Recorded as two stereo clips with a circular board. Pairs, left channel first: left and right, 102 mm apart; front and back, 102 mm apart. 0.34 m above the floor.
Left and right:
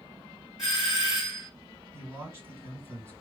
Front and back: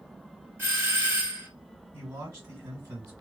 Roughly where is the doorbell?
Behind.